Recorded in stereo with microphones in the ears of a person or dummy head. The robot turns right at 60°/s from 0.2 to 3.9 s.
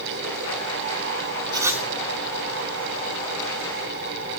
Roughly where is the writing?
Right.